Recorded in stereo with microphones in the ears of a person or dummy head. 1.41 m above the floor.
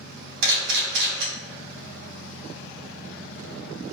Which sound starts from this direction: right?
A camera shutter, at 0.4 s.